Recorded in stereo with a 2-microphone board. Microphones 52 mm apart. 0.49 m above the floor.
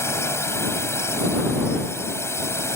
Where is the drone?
60° left (ahead or behind).